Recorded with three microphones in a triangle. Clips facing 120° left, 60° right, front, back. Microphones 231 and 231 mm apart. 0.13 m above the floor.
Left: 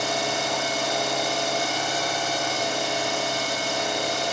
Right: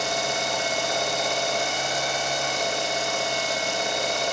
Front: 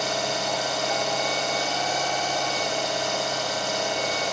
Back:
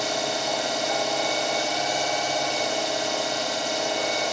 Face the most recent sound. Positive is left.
turn(degrees=100)